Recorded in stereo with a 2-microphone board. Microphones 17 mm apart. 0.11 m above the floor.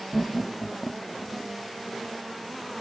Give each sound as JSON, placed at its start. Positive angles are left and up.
{"t": 0.1, "sound": "laughter", "side_deg": 60}